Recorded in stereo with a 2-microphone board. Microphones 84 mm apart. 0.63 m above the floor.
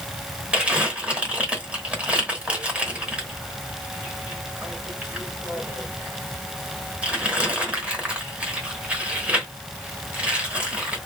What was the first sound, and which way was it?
Crumpling, 15° right (ahead or behind).